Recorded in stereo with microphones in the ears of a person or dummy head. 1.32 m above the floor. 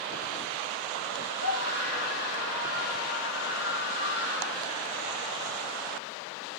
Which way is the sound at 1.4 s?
65° left (ahead or behind).